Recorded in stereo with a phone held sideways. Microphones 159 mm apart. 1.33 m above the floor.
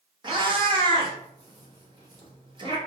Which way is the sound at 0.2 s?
30° right (ahead or behind).